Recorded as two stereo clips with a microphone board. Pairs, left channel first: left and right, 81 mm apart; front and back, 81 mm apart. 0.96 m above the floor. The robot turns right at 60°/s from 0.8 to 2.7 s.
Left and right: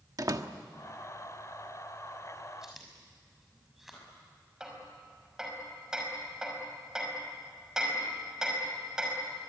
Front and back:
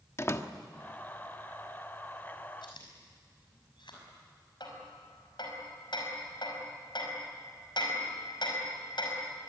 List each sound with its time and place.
0.2 s a door slam: 50° right, 1.2 m
2.6 s chewing: 10° right, 5.5 m; by 4.1 s 5° right, 5.5 m
4.6 s hammering: 10° right, 5 m